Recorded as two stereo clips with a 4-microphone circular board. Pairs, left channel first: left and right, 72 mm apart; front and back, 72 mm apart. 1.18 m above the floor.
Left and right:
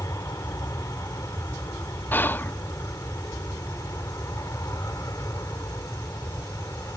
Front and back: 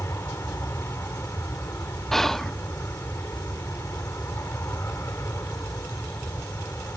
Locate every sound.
0.0 s an aircraft: 50° left
2.1 s whispering: 80° left